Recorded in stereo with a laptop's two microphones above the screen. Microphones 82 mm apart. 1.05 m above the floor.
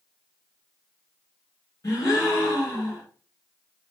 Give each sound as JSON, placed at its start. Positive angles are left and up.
{"t": 1.8, "sound": "a gasp", "side_deg": 40, "distance_m": 1.5}